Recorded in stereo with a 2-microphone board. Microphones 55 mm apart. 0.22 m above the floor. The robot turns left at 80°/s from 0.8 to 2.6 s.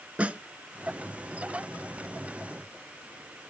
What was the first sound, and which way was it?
A snare drum, 25° right (ahead or behind).